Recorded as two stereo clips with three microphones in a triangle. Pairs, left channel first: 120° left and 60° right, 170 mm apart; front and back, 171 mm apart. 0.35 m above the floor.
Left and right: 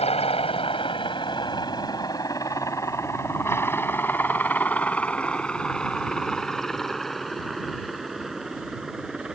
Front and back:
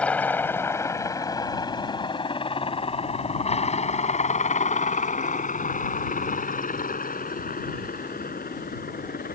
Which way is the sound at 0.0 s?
80° left.